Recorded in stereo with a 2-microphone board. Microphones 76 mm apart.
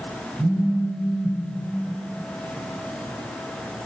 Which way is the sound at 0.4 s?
65° right (ahead or behind).